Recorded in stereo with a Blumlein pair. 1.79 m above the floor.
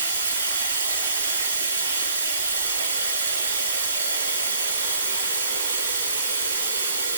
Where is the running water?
70° right, 4 m.